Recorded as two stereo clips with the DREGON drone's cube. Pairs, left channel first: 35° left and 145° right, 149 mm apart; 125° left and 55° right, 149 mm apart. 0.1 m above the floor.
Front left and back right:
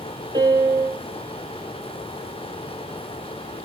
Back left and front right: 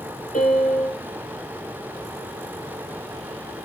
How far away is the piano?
About 3.5 m.